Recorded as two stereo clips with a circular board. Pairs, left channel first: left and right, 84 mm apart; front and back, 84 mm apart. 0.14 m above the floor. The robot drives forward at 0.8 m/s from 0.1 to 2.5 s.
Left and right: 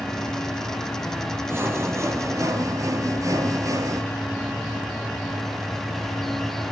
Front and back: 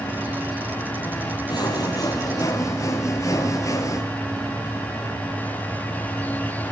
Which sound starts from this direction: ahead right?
Sawing, at 1.5 s.